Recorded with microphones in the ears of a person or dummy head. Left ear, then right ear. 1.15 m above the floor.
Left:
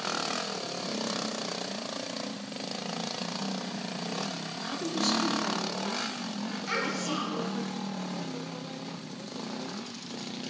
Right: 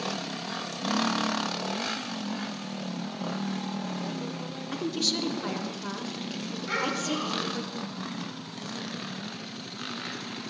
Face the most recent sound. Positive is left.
turn(degrees=35)  # may be behind; listen again after turning